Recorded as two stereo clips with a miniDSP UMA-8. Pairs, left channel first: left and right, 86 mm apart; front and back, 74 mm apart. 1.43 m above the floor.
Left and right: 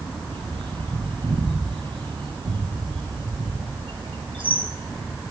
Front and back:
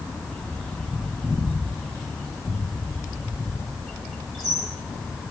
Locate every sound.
0.3 s a bird: 85° right, 6 m